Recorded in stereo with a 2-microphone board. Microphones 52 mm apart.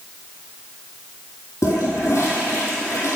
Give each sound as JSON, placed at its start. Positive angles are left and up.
{"t": 1.6, "sound": "a toilet flushing", "side_deg": 70, "distance_m": 2.0}